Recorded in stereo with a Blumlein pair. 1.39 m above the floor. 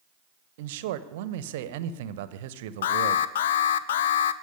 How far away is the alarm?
About 0.6 m.